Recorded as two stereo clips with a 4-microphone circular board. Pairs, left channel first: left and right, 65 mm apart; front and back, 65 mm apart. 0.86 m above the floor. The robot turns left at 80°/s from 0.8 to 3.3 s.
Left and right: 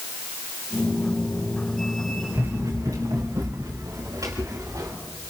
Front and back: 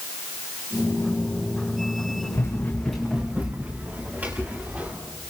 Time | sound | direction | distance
2.3 | running footsteps | 40° right | 6 m